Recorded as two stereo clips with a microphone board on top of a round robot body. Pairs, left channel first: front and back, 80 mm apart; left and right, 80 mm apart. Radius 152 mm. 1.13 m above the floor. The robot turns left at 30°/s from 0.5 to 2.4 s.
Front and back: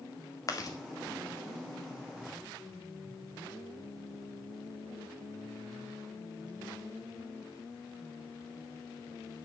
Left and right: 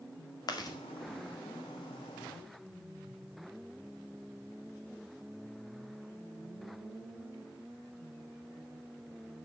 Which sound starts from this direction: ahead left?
Chewing, at 0.5 s.